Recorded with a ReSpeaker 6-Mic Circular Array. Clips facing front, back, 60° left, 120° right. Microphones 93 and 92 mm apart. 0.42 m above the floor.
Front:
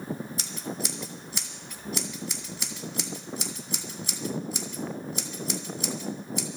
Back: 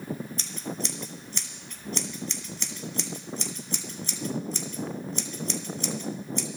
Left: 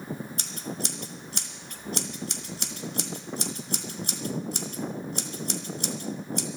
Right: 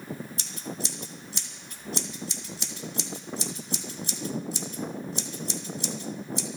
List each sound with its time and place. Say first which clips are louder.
0.4 s scissors: even, left 1 dB; 80° left, 1.9 m